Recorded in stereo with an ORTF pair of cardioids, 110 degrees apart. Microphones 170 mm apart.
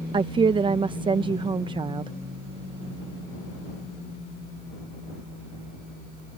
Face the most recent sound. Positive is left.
turn(degrees=-30)